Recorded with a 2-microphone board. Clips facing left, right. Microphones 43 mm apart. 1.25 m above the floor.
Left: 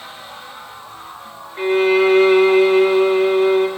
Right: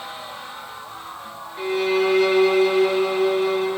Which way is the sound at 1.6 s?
40° left (ahead or behind).